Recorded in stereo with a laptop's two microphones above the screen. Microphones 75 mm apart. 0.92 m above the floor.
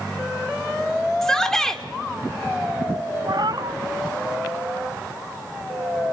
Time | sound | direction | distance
1.2 | a shout | 5° left (ahead or behind) | 3.5 m
3.3 | a cat meowing | 60° right (ahead or behind) | 0.6 m